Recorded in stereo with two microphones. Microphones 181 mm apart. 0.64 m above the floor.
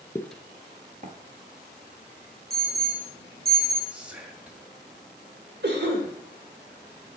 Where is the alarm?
60° right (ahead or behind), 2.5 m.